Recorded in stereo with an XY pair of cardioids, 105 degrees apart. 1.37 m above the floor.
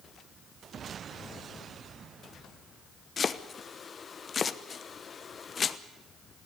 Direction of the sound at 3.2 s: 40° left.